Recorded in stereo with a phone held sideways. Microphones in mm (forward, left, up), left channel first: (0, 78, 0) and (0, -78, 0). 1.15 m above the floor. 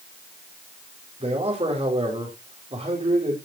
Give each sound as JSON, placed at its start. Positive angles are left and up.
{"t": 1.2, "sound": "a man speaking", "side_deg": -40, "distance_m": 4.0}